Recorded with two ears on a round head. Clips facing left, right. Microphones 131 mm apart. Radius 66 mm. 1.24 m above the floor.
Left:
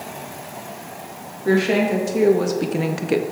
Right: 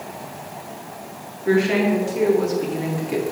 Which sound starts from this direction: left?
A woman speaking, at 1.4 s.